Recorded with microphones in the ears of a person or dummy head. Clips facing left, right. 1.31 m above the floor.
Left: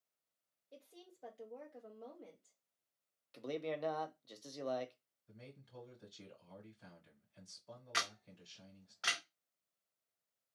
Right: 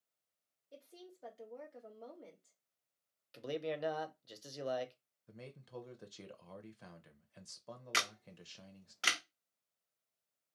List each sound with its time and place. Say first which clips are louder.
0.7 s a woman speaking: right 3 dB; 5° right (ahead or behind), 1.4 m
3.3 s a man speaking: right 1 dB; 15° right (ahead or behind), 0.5 m
5.3 s a man speaking: right 5 dB; 65° right (ahead or behind), 0.8 m
7.9 s a camera shutter: right 1 dB; 40° right (ahead or behind), 0.6 m